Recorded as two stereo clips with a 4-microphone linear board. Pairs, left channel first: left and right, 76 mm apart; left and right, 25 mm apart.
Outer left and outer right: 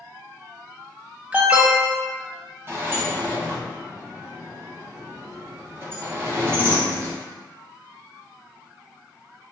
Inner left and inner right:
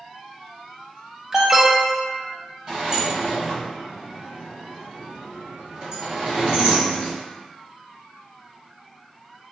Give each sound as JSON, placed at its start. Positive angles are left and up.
{"t": 1.3, "sound": "an alarm", "side_deg": -20, "distance_m": 0.7}
{"t": 2.7, "sound": "a sliding door", "side_deg": -35, "distance_m": 1.4}